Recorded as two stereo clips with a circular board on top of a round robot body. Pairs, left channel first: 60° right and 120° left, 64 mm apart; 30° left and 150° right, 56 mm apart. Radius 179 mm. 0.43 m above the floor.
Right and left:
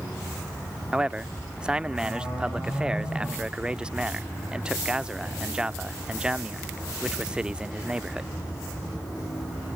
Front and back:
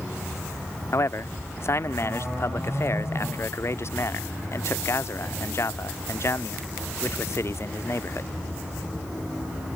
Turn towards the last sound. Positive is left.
turn(degrees=45)